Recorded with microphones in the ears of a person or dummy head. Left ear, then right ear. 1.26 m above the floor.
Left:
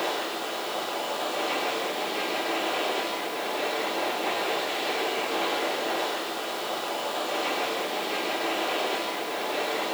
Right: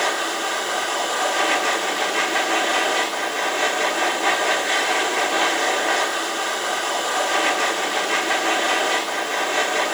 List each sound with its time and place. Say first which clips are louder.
0.0 s a machine running: right 7 dB; 65° right (ahead or behind), 2 m